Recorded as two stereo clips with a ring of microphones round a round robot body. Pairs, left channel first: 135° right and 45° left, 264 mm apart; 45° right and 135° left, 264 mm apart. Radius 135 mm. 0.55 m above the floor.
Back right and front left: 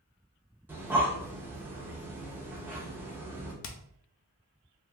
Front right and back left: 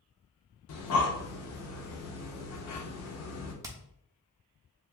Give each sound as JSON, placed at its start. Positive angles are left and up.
{"t": 0.7, "sound": "breathing", "azimuth_deg": -35, "distance_m": 0.7}
{"t": 3.6, "sound": "hammering", "azimuth_deg": -150, "distance_m": 0.5}